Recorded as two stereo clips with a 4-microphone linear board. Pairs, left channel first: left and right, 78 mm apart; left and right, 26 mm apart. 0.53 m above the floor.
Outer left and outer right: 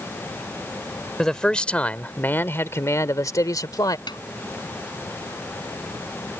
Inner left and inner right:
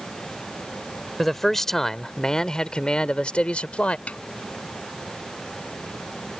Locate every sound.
1.2 s a man speaking: 5° left (ahead or behind); by 4.0 s 60° left (ahead or behind)
4.1 s a snare drum: 70° left (ahead or behind)